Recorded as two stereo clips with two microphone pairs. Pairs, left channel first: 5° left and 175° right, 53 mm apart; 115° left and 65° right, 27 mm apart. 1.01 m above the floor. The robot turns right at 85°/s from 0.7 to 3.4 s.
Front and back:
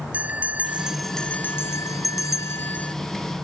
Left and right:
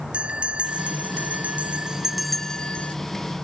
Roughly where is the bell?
Right.